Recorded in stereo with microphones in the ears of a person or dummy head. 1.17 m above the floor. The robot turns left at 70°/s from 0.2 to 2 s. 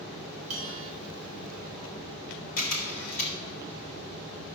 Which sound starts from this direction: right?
A bell, at 0.5 s.